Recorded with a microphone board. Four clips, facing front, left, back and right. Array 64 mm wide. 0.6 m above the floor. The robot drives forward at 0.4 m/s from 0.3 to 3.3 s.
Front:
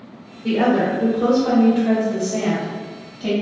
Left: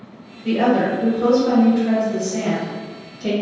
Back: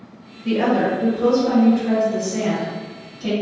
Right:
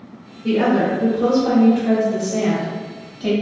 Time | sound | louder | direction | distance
0.4 | a woman speaking | even, front 1 dB | 25° right | 1.8 m